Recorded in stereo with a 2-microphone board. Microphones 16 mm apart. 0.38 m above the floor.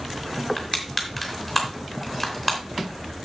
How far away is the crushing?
About 3 m.